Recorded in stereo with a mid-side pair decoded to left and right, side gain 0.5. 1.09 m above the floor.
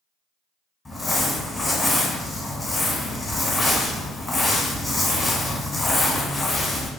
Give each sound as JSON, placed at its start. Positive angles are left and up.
{"t": 0.8, "sound": "crumpling", "azimuth_deg": 20, "distance_m": 1.0}